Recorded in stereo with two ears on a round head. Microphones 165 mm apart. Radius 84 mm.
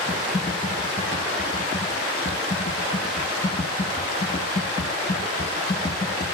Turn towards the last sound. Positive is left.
turn(degrees=30)  # may be behind; listen again after turning